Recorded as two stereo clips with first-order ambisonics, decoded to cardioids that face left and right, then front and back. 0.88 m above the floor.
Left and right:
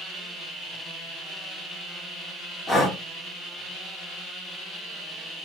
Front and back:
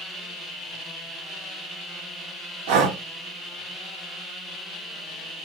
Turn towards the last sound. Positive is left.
turn(degrees=165)